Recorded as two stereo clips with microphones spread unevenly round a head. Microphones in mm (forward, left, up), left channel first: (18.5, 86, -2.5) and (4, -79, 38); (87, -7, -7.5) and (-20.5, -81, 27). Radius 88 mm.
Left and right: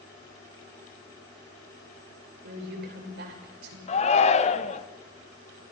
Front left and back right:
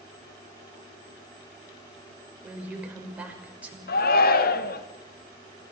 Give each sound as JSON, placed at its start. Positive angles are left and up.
{"t": 2.4, "sound": "a woman speaking", "azimuth_deg": -70, "distance_m": 6.0}
{"t": 3.9, "sound": "a shout", "azimuth_deg": 30, "distance_m": 1.5}